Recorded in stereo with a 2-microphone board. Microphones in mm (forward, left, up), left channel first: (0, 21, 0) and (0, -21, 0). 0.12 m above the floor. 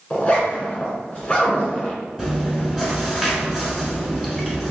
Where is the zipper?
25° left (ahead or behind), 1.2 m.